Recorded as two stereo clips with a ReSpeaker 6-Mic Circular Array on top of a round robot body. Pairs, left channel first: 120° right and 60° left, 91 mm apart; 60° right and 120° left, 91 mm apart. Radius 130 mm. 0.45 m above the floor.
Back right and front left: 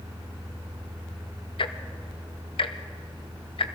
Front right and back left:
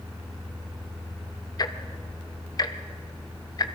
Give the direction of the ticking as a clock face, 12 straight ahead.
3 o'clock.